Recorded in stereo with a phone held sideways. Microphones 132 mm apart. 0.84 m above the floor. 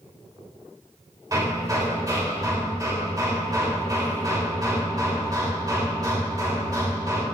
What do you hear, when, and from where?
1.3 s hammering: 30° right (ahead or behind), 2.5 m